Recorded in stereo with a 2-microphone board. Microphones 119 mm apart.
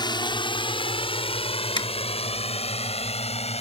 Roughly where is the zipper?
Left.